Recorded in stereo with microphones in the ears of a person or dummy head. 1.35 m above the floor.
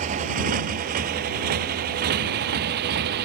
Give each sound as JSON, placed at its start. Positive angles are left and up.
{"t": 0.0, "sound": "a motorcycle", "side_deg": -45}